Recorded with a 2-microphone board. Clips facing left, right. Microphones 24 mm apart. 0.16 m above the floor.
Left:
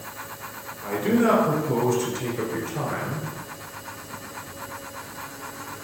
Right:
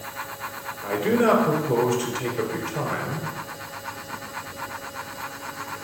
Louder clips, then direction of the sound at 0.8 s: Right 1 dB; 10° right (ahead or behind).